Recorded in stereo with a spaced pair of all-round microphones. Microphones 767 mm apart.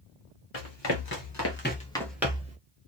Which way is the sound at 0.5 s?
40° left (ahead or behind).